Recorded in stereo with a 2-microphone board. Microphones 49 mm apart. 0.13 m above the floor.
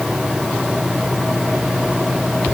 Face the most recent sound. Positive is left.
No sound to turn to.